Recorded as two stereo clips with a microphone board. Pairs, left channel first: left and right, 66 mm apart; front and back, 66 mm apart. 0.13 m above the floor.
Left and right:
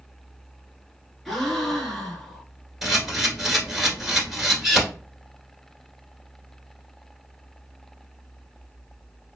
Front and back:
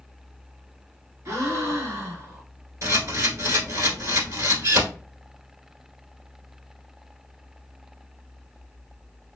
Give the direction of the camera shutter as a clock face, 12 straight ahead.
6 o'clock.